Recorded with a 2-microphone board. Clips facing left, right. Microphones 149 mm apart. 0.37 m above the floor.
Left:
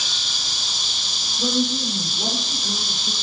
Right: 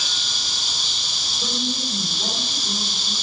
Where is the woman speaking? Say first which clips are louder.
Left 6 dB; 20° left (ahead or behind), 10 m.